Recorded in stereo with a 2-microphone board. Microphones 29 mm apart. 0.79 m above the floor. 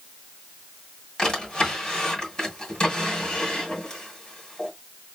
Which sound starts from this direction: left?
A drawer, at 1.2 s.